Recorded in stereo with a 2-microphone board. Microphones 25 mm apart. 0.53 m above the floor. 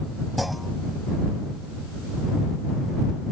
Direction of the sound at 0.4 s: 5° right (ahead or behind).